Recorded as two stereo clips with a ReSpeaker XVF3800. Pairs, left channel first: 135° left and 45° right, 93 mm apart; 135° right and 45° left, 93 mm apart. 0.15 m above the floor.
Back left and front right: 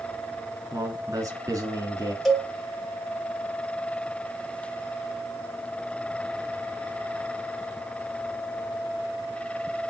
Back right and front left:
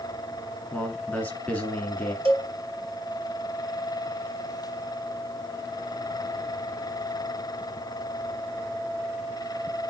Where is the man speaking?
70° right, 1.7 m.